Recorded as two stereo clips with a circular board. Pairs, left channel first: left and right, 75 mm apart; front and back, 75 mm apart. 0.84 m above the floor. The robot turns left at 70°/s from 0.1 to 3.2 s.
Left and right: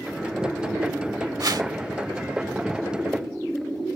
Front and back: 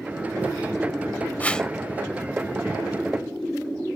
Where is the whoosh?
65° right; by 1.7 s 85° right.